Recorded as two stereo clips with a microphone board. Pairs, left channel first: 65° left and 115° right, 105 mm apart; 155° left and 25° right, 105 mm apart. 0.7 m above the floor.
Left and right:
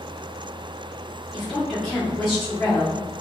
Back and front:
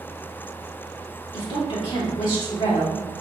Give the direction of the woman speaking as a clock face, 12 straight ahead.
7 o'clock.